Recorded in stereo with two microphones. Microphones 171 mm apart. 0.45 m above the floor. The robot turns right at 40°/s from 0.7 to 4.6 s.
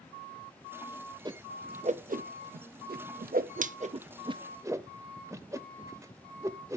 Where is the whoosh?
25° right (ahead or behind), 0.5 m; by 6.8 s 20° right (ahead or behind), 0.5 m.